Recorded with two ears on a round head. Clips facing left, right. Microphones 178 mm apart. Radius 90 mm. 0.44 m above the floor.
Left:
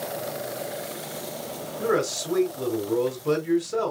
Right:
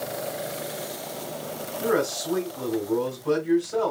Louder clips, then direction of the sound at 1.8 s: Even; 25° left (ahead or behind).